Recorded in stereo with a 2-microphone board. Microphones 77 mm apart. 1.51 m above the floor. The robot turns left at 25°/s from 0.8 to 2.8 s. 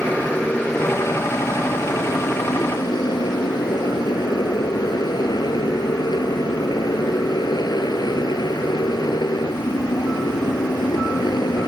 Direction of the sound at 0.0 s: 160° left.